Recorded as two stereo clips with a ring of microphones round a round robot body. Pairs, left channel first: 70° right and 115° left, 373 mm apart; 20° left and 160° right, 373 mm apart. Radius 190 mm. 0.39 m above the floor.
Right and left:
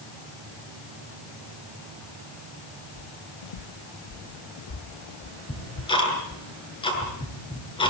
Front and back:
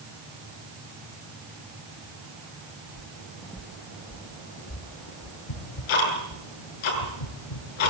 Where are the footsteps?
90° right, 0.8 m; by 6.4 s 10° right, 1.9 m.